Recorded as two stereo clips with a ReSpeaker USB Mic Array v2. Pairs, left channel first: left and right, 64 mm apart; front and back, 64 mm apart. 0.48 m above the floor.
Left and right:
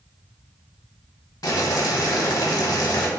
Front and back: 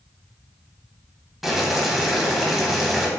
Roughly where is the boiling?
Left.